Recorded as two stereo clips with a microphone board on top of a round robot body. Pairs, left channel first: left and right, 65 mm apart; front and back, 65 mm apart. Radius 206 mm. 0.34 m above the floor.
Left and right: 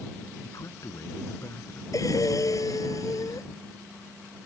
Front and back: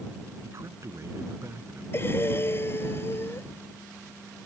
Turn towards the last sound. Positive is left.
turn(degrees=55)